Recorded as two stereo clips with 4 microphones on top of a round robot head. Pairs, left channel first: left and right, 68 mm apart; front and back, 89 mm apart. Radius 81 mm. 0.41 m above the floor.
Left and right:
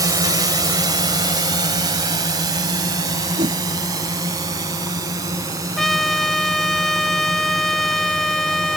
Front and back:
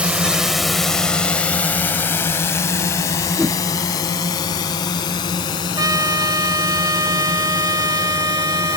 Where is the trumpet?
175° left.